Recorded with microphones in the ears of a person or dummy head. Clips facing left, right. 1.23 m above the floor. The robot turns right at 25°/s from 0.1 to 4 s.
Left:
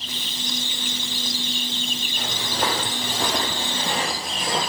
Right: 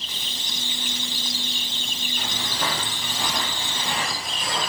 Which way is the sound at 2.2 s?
30° left (ahead or behind).